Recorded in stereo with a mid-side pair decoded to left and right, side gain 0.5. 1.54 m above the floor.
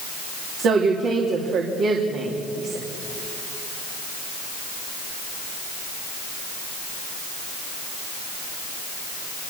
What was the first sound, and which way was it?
A woman speaking, 65° right.